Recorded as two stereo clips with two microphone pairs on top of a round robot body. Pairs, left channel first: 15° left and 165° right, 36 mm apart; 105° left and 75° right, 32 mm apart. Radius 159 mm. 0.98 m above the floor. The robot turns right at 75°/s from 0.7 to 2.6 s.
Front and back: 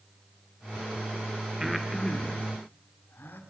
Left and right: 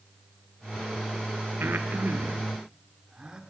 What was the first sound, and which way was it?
Breathing, 85° right.